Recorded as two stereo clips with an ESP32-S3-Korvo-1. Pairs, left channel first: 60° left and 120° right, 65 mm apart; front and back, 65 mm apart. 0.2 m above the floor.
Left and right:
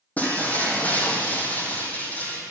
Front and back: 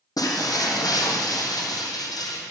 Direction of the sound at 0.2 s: 5° right.